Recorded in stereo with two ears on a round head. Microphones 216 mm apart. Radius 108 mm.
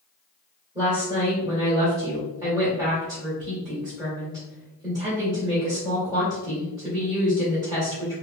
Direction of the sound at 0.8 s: 15° right (ahead or behind).